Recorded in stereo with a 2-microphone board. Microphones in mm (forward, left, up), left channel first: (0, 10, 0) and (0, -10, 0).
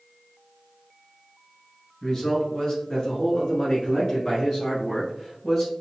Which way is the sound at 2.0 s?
25° left (ahead or behind).